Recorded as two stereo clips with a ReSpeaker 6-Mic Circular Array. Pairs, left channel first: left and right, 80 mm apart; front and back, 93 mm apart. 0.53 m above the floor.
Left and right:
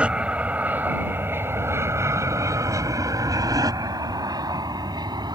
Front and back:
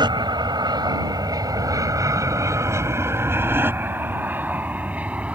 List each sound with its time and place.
0.0 s an aircraft: 160° right; by 5.3 s 105° right